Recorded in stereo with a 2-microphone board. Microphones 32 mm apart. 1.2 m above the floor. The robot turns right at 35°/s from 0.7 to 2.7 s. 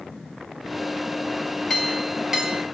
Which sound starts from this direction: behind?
A clink, at 1.7 s.